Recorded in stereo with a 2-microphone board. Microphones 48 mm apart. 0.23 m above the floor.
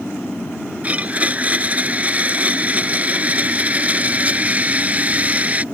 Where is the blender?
30° right (ahead or behind).